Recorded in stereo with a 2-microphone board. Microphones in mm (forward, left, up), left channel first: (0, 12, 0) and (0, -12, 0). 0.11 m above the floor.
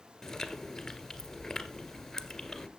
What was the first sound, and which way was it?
Chewing, 20° left (ahead or behind).